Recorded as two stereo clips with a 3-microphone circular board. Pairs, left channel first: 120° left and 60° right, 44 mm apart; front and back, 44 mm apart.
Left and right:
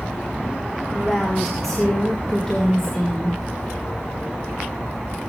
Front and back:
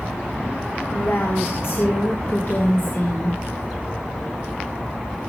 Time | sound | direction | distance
0.9 | a woman speaking | 30° left | 2.5 m